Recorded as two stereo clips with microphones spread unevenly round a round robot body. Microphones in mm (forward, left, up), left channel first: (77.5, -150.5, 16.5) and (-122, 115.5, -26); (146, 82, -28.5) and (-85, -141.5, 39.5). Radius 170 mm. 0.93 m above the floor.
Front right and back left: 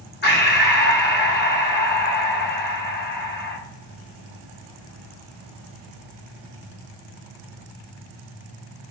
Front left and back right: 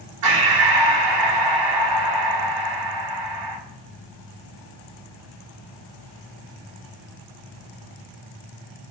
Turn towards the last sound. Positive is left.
turn(degrees=-115)